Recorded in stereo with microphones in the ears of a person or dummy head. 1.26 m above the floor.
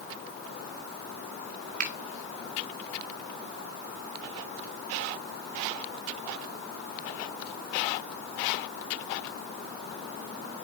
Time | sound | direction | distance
1.8 | a finger snap | 45° right (ahead or behind) | 1.6 m